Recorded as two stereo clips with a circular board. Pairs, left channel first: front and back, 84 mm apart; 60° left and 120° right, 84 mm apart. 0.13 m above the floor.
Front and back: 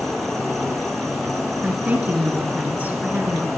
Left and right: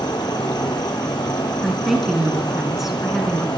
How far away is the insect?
About 1.0 m.